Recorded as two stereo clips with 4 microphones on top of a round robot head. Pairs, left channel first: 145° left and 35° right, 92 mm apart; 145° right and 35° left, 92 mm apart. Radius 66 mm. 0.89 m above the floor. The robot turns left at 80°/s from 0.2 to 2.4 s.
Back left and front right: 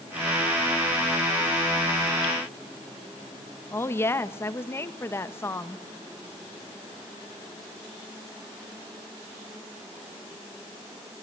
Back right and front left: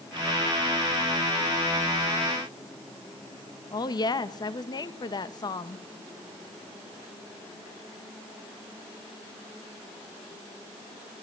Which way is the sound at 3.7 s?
160° right.